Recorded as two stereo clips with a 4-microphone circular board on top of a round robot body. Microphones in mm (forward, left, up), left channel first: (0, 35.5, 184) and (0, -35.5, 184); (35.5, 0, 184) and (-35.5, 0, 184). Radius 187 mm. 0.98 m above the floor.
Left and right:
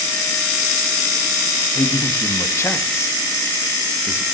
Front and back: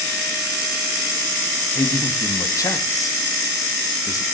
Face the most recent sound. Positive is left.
turn(degrees=40)